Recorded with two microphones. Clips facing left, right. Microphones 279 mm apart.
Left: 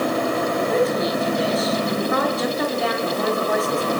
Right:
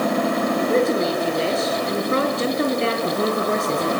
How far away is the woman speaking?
About 7.5 m.